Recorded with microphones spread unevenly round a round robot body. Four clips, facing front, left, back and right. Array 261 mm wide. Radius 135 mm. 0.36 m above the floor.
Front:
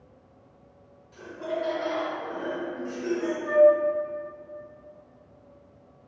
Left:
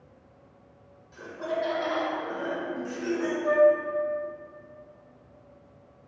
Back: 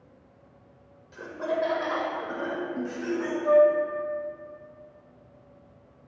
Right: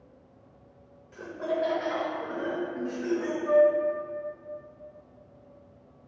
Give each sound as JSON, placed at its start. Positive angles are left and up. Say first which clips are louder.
{"t": 1.1, "sound": "laughter", "louder": "right 1 dB, back 2 dB", "azimuth_deg": -135, "distance_m": 1.2}
{"t": 3.4, "sound": "a flute", "louder": "left 1 dB, front 1 dB", "azimuth_deg": 140, "distance_m": 2.0}